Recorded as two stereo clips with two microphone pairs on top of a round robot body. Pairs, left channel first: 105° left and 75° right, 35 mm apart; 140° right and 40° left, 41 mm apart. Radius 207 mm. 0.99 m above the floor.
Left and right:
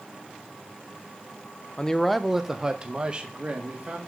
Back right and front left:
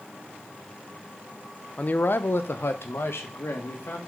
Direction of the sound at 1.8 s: 175° left.